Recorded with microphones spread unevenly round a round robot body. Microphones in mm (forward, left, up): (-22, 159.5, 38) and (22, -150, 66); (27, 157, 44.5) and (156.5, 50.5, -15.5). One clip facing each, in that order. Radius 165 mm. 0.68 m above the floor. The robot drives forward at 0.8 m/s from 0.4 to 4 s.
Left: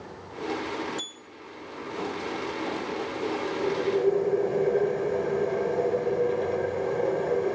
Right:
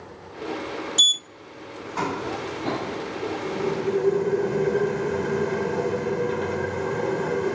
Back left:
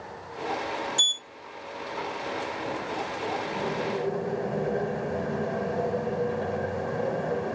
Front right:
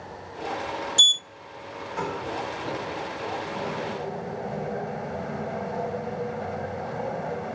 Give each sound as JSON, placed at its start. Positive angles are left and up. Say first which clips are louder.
{"t": 1.0, "sound": "a sliding door", "louder": "even, front right 1 dB", "azimuth_deg": -45}